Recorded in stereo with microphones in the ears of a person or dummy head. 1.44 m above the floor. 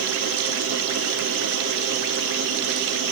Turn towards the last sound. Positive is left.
No sound to turn to.